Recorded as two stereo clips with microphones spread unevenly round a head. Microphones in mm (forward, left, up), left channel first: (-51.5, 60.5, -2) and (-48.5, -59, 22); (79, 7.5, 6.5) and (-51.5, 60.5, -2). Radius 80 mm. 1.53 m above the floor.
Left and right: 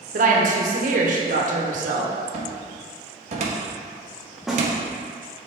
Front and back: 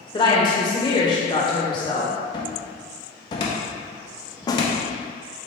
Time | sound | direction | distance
0.1 | a woman speaking | 85° right | 1.1 m
2.3 | a cupboard door | 80° right | 0.8 m
4.5 | a snare drum | 25° right | 0.6 m